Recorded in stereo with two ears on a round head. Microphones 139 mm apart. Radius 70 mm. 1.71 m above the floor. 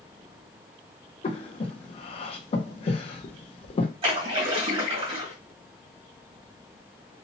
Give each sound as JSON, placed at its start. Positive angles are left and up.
{"t": 1.2, "sound": "breathing", "side_deg": 40, "distance_m": 0.6}
{"t": 4.0, "sound": "a splash", "side_deg": -35, "distance_m": 1.3}